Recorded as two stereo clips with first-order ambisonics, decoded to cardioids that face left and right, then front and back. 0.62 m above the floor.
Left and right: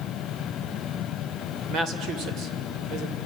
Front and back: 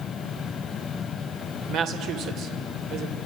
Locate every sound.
1.7 s a woman speaking: 135° right, 2.5 m